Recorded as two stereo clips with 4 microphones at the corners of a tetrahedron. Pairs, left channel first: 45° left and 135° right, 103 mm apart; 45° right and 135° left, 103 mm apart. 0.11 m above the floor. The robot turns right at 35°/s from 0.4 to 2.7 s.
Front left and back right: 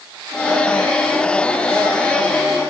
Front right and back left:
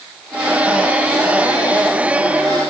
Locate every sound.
Only background noise.